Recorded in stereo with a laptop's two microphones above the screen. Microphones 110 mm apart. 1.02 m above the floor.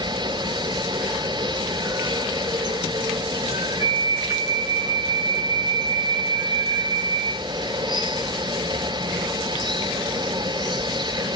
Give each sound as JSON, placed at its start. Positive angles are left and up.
{"t": 0.0, "sound": "running water", "side_deg": -45, "distance_m": 2.0}
{"t": 3.8, "sound": "a flute", "side_deg": 15, "distance_m": 3.0}